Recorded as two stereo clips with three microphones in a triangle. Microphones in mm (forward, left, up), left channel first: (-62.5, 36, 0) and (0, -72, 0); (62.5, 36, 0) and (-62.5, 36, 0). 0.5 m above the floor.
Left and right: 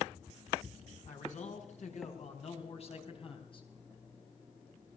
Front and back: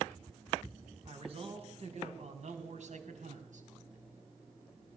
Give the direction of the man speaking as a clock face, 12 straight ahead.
7 o'clock.